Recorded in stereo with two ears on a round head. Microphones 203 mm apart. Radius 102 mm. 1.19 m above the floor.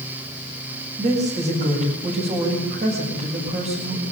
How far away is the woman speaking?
About 7.5 m.